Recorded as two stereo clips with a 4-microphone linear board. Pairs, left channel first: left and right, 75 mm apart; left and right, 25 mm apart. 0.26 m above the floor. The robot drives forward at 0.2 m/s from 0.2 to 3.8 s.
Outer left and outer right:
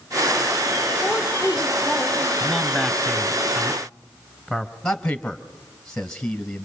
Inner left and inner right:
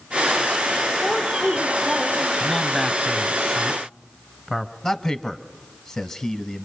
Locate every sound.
1.0 s a woman speaking: 20° left (ahead or behind), 9 m
2.4 s a man speaking: centre (ahead or behind), 1.4 m
4.8 s a man speaking: 10° left (ahead or behind), 1.1 m